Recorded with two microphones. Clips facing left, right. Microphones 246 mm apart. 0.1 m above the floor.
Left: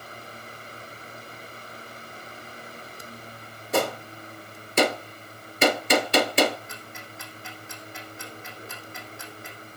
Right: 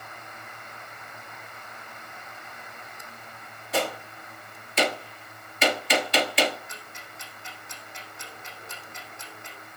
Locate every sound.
3.7 s a gunshot: 50° left (ahead or behind), 1.4 m
6.7 s ticking: 65° left (ahead or behind), 4.5 m